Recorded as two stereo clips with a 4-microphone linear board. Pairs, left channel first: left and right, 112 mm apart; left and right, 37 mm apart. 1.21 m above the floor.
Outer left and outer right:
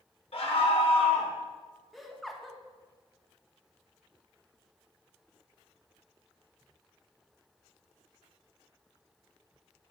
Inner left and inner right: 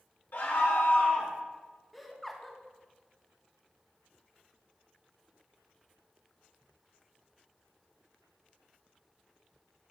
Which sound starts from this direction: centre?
Laughter, at 1.9 s.